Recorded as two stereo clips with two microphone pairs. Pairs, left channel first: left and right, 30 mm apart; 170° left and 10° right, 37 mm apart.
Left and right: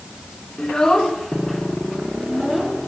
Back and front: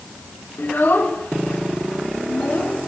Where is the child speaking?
150° left, 3 m; by 2.8 s 165° right, 3.5 m.